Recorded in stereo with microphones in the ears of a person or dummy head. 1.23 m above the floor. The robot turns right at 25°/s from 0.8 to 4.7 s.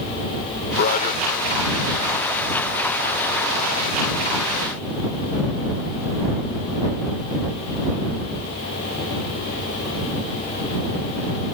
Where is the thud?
No thud in this recording.